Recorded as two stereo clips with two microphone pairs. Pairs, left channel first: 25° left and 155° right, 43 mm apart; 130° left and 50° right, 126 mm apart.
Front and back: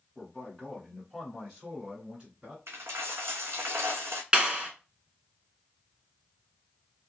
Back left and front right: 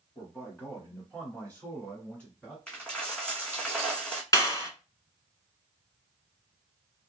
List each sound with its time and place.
0.1 s a man speaking: 80° left, 1.7 m; by 2.6 s 160° right, 1.6 m
2.7 s a dropped coin: 150° right, 1.0 m
4.3 s a clap: 155° left, 1.0 m